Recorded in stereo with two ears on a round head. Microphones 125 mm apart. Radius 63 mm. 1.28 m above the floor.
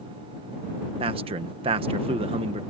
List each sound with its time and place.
1.0 s a man speaking: 40° right (ahead or behind)